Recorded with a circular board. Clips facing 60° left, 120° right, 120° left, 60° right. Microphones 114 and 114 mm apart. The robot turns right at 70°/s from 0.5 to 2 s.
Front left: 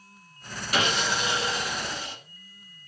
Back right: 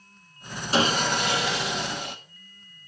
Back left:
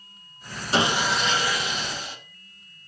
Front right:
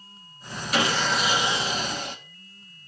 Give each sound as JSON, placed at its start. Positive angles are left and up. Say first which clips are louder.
{"t": 0.7, "sound": "sawing", "louder": "back right 3 dB, back left 1 dB", "azimuth_deg": 180, "distance_m": 1.5}